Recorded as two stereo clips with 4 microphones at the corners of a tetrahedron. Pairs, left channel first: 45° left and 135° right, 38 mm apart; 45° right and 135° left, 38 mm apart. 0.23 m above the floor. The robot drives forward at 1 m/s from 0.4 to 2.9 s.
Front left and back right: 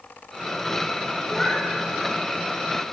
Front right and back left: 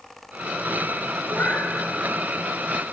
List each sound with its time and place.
1.3 s a cat meowing: 35° right, 8 m